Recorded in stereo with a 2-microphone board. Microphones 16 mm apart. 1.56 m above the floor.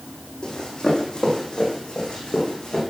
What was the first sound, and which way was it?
Running footsteps, 65° left (ahead or behind).